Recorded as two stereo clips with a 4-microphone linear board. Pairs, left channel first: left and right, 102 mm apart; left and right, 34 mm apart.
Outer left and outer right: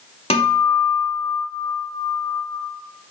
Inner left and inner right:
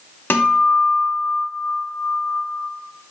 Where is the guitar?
75° left (ahead or behind), 0.9 m.